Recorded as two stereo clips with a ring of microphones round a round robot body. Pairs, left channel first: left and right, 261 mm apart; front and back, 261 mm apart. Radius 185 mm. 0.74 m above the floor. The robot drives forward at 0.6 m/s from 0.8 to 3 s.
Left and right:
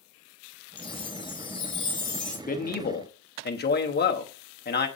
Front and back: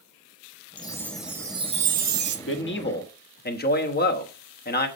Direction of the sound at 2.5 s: 35° left.